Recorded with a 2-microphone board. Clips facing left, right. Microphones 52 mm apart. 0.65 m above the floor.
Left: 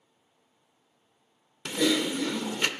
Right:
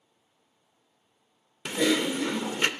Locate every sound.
1.6 s typing on a keyboard: 20° right (ahead or behind), 0.6 m